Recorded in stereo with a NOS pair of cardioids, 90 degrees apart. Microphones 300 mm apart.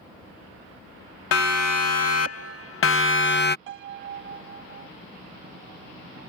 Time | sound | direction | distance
1.3 | a siren | 60° left | ?
3.7 | a piano | 40° right | ?